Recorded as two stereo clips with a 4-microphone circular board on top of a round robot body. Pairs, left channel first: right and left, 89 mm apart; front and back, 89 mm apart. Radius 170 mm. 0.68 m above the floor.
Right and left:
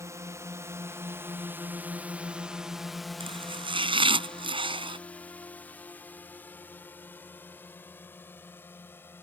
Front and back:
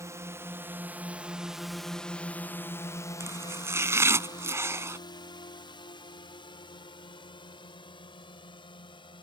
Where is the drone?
135° left; by 9.2 s 25° right.